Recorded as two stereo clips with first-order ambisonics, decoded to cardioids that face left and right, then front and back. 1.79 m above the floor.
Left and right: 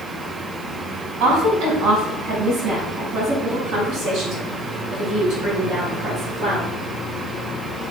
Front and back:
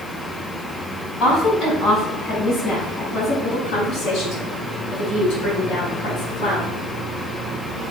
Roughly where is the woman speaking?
Ahead right.